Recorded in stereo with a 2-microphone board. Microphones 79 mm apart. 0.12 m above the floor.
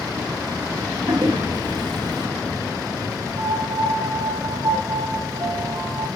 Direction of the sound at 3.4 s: 55° right (ahead or behind).